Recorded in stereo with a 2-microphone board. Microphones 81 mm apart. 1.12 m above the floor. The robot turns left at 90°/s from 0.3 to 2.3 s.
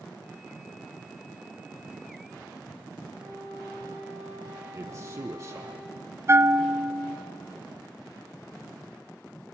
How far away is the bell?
About 0.8 m.